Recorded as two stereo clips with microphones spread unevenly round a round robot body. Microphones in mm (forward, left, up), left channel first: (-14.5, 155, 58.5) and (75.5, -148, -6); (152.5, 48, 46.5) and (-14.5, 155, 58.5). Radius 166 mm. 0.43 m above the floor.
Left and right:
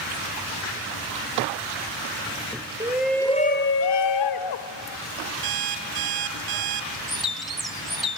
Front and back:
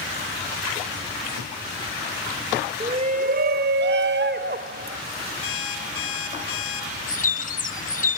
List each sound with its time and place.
2.8 s a shout: 145° right, 1.4 m; by 5.0 s 105° left, 1.8 m
5.4 s an alarm clock: 65° right, 2.5 m
7.1 s a bird: 15° left, 1.8 m